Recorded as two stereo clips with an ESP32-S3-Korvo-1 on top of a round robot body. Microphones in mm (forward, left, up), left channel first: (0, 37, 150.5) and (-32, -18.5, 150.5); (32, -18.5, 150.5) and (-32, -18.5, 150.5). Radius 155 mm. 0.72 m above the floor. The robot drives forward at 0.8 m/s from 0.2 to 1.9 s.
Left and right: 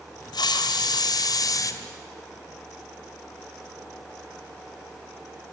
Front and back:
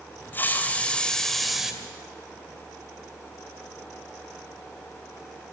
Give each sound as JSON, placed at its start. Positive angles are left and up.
{"t": 0.3, "sound": "a hiss", "azimuth_deg": 60, "distance_m": 2.0}